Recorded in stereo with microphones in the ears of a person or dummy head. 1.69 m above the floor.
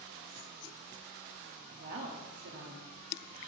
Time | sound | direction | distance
1.7 | a woman speaking | 50° right (ahead or behind) | 0.8 m